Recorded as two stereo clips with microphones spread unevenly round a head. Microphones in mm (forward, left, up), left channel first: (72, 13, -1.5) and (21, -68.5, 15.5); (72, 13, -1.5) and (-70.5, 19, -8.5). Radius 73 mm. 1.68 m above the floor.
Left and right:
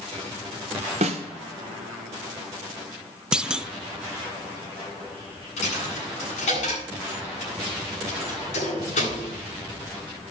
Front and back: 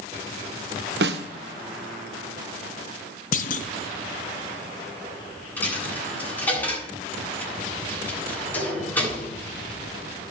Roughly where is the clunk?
Ahead right.